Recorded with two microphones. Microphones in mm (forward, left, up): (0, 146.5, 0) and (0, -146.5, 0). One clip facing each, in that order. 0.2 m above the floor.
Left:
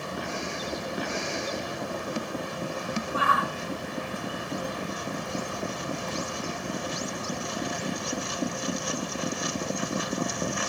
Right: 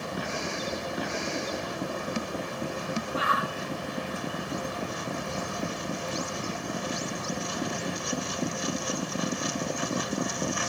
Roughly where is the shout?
Left.